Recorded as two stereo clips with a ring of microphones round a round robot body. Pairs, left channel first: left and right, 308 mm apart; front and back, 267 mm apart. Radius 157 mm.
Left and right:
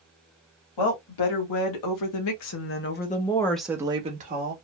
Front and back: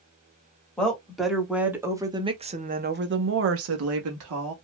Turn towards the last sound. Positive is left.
turn(degrees=-145)